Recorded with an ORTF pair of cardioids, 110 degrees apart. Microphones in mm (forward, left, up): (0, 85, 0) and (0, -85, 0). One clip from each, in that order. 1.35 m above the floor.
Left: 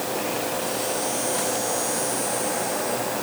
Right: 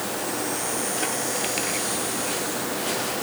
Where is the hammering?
I don't hear hammering.